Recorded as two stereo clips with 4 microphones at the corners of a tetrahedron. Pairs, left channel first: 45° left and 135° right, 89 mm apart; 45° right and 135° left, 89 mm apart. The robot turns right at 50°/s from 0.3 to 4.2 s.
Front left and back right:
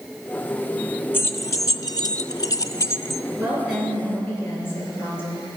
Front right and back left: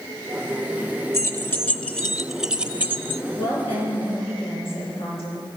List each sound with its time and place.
1.1 s keys jangling: 10° right, 0.6 m; by 3.2 s 95° left, 0.6 m
3.4 s a woman speaking: 65° right, 6.5 m; by 5.5 s 20° right, 6.5 m